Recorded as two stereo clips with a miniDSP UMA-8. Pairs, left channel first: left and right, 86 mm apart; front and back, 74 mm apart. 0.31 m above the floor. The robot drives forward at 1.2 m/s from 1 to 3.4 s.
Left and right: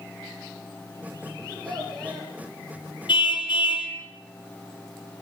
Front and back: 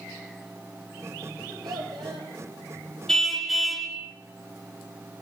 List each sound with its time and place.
1.4 s a child speaking: 170° left, 9.5 m
3.1 s a car horn: 80° left, 3 m; by 3.9 s 90° left, 2.5 m